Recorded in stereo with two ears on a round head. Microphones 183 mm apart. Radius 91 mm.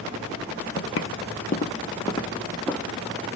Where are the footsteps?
60° left (ahead or behind), 0.7 m; by 2.9 s 5° left (ahead or behind), 1.3 m.